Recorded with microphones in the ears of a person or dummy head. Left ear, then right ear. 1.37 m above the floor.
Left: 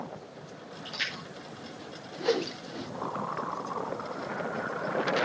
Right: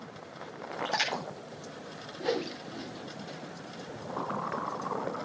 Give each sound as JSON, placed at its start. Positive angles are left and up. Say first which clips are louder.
{"t": 0.8, "sound": "a splash", "louder": "right 3 dB", "side_deg": -85, "distance_m": 7.0}
{"t": 2.2, "sound": "a whoosh", "louder": "left 3 dB", "side_deg": 15, "distance_m": 1.0}